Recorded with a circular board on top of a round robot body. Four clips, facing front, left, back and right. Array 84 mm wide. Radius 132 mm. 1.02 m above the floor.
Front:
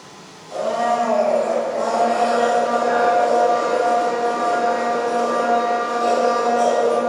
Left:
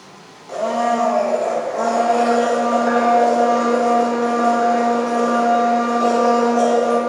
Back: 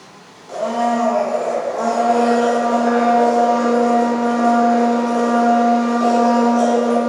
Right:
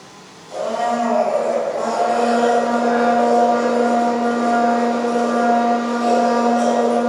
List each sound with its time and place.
0.5 s a blender: 120° left, 2 m